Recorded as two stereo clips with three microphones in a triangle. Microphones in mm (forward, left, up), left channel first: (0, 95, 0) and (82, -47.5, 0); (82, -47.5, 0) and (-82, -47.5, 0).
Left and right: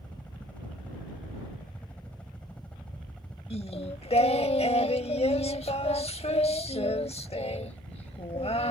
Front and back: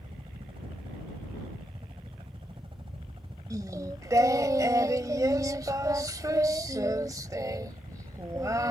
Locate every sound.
0.0 s a helicopter: 165° right
3.5 s singing: 125° left